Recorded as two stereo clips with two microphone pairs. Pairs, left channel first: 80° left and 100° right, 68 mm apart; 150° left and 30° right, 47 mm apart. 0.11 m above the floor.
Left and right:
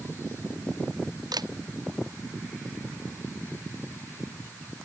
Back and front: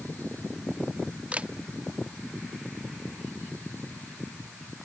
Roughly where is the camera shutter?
Right.